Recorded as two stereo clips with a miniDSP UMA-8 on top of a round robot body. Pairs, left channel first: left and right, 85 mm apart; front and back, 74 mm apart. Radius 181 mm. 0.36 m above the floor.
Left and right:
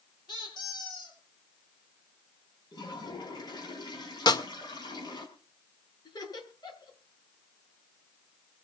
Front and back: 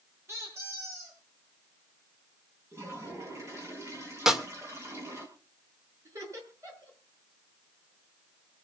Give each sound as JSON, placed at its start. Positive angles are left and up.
{"t": 0.3, "sound": "a squeak", "azimuth_deg": 120, "distance_m": 7.0}
{"t": 2.7, "sound": "a toilet flushing", "azimuth_deg": 125, "distance_m": 5.0}
{"t": 4.3, "sound": "a snare drum", "azimuth_deg": 100, "distance_m": 2.0}
{"t": 6.0, "sound": "laughter", "azimuth_deg": 130, "distance_m": 8.5}